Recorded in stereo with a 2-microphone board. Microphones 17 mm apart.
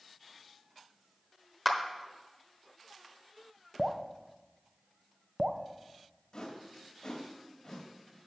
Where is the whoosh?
55° left (ahead or behind), 2 m.